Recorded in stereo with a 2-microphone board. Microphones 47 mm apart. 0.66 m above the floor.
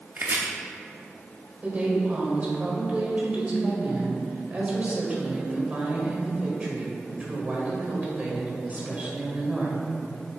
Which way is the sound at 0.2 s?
50° right (ahead or behind).